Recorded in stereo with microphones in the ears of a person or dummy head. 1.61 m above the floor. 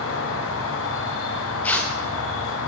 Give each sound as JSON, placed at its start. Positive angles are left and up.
{"t": 0.0, "sound": "an insect", "side_deg": 75, "distance_m": 1.0}
{"t": 1.6, "sound": "tearing paper", "side_deg": 5, "distance_m": 0.5}